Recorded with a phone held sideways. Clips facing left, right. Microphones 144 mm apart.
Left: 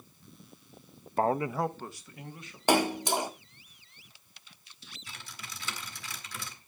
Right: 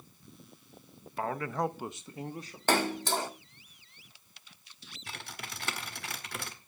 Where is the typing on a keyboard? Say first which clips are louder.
Right 5 dB; 65° right (ahead or behind), 1.3 m.